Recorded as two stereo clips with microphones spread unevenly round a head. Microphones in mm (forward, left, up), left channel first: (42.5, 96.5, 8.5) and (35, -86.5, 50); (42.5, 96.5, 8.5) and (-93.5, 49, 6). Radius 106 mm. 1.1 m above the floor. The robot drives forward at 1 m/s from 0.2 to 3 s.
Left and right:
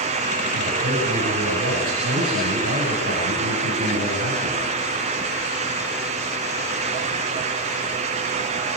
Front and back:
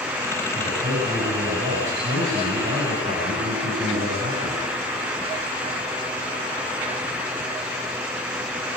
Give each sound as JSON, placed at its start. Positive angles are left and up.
{"t": 0.5, "sound": "a man speaking", "azimuth_deg": -95, "distance_m": 7.0}